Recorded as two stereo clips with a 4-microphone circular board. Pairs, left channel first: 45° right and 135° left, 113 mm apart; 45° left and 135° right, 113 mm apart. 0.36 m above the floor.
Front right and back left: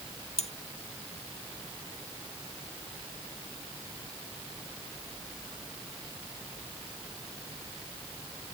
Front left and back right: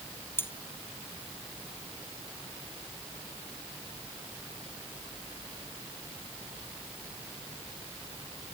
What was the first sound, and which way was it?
Cutlery clinking, 25° right.